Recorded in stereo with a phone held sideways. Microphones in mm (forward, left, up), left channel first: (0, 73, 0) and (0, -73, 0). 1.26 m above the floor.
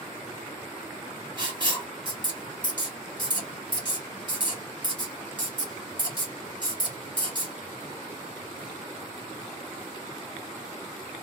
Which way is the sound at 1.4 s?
35° right (ahead or behind).